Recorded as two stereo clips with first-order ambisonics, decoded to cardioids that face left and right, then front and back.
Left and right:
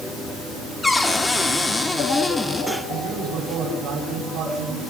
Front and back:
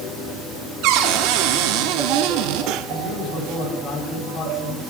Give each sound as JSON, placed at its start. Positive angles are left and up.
{"t": 0.8, "sound": "a cupboard door", "azimuth_deg": 170, "distance_m": 1.4}
{"t": 2.9, "sound": "a man speaking", "azimuth_deg": -70, "distance_m": 9.0}